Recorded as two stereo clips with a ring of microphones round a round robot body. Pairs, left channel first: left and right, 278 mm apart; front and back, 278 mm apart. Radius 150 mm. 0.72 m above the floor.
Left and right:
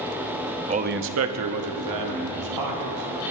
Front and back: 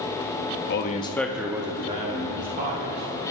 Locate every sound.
0.7 s a man speaking: 30° right, 0.7 m; by 3.3 s 120° right, 2.5 m